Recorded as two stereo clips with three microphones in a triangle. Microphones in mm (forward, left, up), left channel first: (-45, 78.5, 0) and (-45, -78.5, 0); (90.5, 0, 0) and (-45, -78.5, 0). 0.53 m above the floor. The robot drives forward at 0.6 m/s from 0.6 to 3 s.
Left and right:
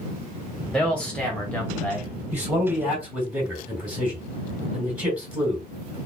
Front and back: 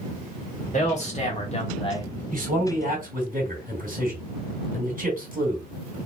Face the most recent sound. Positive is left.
turn(degrees=-170)